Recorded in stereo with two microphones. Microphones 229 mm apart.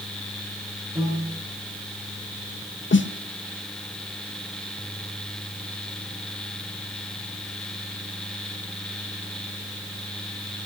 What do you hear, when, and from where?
0.9 s a piano: 25° right (ahead or behind), 8 m
2.9 s a snare drum: 55° left (ahead or behind), 0.9 m